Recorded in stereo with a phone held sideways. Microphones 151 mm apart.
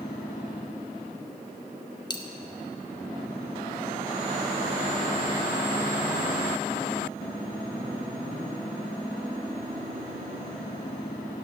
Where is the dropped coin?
30° left (ahead or behind), 0.6 m.